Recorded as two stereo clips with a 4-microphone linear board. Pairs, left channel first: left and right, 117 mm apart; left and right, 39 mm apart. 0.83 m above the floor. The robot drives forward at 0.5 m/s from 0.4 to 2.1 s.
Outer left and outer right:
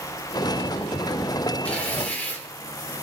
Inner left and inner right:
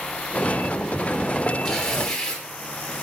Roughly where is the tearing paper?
Centre.